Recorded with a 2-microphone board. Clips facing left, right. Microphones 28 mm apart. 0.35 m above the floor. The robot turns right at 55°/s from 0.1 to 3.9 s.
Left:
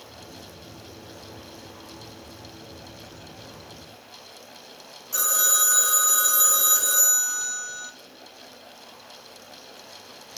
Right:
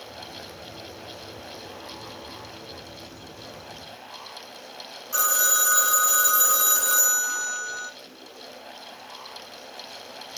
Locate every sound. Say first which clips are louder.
5.1 s a phone ringing: right 1 dB; 25° right (ahead or behind), 1.4 m